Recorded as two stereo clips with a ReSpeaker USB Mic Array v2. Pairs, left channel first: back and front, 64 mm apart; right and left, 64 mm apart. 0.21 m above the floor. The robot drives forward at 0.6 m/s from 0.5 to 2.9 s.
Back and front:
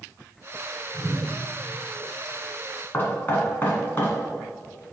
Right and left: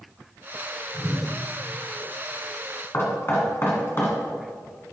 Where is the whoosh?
25° left, 2 m; by 1.3 s 30° left, 2.0 m.